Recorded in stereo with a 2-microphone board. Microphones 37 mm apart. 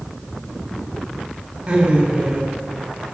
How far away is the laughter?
About 4 m.